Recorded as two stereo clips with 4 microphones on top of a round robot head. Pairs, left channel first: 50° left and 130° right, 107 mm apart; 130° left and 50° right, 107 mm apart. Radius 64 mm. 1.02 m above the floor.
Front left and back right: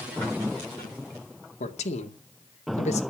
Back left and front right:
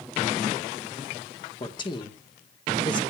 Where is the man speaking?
80° left, 2.5 m.